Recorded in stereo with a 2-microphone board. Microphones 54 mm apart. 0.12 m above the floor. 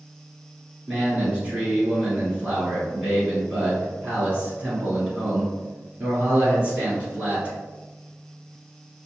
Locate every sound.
0.9 s a man speaking: 25° right (ahead or behind), 1.8 m